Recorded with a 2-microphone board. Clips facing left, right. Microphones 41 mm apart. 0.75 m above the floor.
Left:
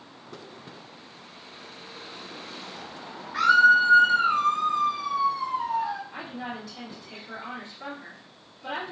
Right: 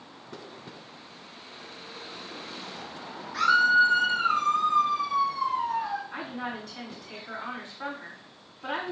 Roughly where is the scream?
Left.